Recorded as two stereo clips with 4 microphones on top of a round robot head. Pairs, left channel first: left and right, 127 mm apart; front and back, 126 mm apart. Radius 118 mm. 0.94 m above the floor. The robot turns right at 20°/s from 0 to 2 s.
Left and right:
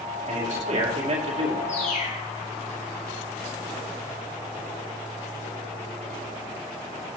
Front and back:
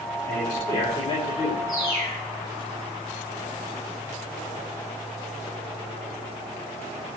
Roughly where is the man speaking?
Right.